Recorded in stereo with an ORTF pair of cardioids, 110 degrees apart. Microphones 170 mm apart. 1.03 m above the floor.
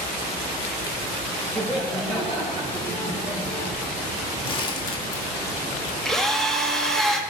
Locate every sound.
1.6 s laughter: 10° left, 4.5 m; by 3.7 s 40° left, 3 m
4.4 s crumpling: 30° left, 1.8 m
6.0 s a drill: 5° left, 1.5 m